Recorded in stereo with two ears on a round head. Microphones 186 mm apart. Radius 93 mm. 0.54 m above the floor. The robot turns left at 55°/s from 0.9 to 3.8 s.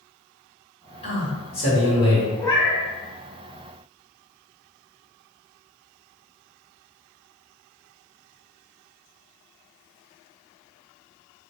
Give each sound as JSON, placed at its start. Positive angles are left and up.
{"t": 1.0, "sound": "a man speaking", "azimuth_deg": 145, "distance_m": 1.8}
{"t": 2.4, "sound": "a cat meowing", "side_deg": 10, "distance_m": 1.0}